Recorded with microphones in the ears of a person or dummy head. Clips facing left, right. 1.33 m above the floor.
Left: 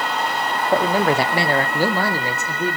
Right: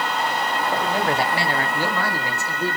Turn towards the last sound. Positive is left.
turn(degrees=20)  # may be behind; listen again after turning